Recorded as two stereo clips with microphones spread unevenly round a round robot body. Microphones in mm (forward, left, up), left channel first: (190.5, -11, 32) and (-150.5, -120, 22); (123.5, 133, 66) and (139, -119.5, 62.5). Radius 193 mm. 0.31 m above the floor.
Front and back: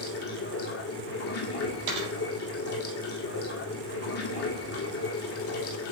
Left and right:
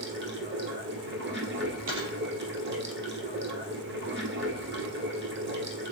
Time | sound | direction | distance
0.0 | running water | 35° right | 2.0 m
1.9 | a dropped coin | 140° right | 5.5 m